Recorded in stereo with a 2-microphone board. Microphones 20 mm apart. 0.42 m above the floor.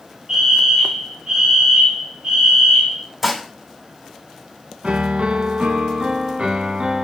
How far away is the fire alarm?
About 3 m.